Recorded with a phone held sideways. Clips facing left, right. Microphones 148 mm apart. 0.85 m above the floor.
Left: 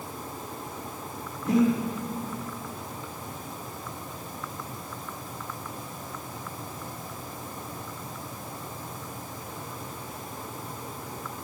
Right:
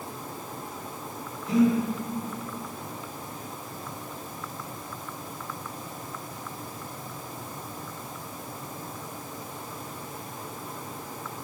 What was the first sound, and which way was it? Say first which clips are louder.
Breathing: even; 65° left (ahead or behind).